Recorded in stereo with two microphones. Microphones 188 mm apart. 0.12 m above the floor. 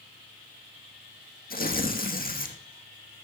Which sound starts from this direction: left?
Tearing paper, at 1.5 s.